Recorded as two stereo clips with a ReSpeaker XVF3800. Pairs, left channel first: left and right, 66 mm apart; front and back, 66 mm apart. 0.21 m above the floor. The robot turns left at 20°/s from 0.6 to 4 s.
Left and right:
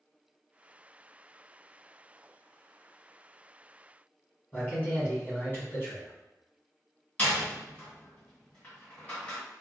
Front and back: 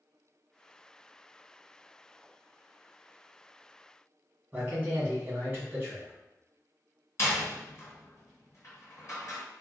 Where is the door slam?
25° left, 1.8 m.